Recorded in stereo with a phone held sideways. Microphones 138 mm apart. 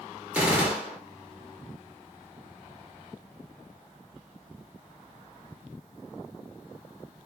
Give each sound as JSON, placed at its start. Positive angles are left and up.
{"t": 0.3, "sound": "a gunshot", "side_deg": -10, "distance_m": 1.0}